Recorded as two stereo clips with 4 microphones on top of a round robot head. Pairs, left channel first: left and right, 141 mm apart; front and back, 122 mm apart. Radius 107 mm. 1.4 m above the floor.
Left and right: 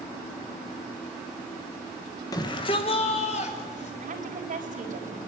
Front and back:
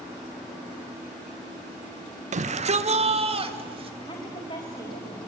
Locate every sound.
2.3 s a shout: 160° left, 1.3 m; by 3.9 s 140° left, 3 m
4.0 s a woman speaking: 65° right, 4.5 m